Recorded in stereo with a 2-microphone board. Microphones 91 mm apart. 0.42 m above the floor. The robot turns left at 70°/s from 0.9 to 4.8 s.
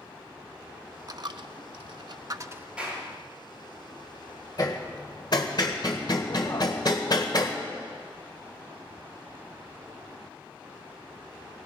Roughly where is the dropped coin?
Right.